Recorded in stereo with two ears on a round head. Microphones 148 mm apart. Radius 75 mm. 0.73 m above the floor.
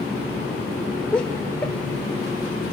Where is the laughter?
5° left (ahead or behind), 1.9 m.